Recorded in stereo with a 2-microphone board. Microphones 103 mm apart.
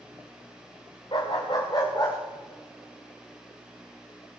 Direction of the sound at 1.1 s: 55° left (ahead or behind).